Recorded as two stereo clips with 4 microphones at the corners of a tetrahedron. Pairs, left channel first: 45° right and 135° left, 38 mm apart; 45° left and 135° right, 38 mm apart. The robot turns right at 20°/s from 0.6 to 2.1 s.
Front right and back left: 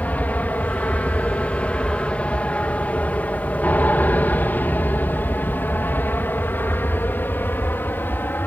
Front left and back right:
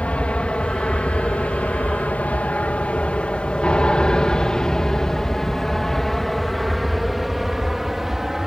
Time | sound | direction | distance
0.0 | an aircraft | 5° right | ?